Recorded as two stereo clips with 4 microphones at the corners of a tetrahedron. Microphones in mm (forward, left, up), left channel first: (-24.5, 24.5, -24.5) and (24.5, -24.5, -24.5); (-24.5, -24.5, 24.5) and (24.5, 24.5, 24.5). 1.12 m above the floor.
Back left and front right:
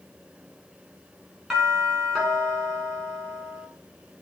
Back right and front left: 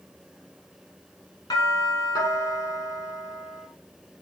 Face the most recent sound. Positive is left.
turn(degrees=-125)